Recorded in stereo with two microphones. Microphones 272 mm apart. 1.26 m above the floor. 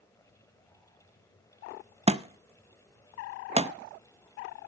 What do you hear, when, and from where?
2.1 s a thud: 20° right (ahead or behind), 0.5 m